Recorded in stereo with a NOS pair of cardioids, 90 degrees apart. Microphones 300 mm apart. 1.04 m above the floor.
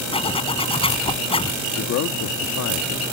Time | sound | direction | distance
0.1 | a zipper | 20° left | ?
1.8 | a man speaking | 65° left | ?